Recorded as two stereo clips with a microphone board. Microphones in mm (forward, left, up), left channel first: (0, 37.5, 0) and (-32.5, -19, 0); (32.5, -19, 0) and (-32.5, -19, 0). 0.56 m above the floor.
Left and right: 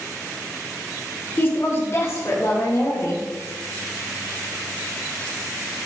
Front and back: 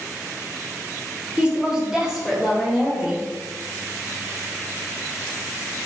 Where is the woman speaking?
110° left, 1.5 m; by 3.2 s 95° left, 3 m.